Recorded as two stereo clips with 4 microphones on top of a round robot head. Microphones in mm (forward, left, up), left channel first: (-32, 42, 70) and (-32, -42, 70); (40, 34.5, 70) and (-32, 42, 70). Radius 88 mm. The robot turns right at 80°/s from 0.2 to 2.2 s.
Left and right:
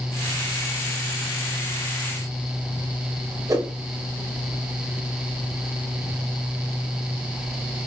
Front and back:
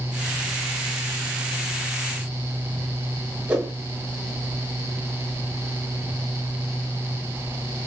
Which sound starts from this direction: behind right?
A whoosh, at 3.5 s.